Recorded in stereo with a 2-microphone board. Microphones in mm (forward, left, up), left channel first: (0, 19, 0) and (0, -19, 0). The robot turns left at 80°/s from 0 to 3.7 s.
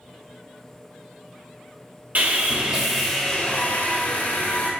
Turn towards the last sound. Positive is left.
turn(degrees=120)